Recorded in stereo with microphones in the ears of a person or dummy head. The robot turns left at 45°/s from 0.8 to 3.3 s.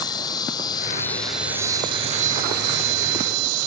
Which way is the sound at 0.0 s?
25° left.